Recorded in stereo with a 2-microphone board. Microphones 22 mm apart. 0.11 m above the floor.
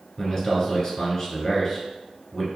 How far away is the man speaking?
About 1.8 m.